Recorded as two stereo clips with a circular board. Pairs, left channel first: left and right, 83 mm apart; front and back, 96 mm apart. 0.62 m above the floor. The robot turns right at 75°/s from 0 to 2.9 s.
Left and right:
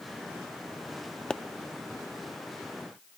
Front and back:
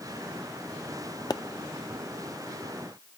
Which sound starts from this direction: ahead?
A pop, at 1.3 s.